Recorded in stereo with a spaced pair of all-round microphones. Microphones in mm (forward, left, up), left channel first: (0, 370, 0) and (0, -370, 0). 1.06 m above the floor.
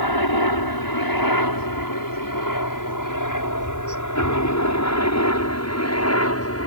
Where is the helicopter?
30° left (ahead or behind); by 6.7 s 20° left (ahead or behind).